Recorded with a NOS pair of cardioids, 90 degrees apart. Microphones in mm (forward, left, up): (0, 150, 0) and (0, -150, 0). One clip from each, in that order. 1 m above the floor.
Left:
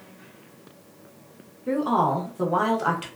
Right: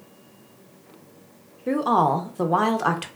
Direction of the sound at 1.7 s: 25° right.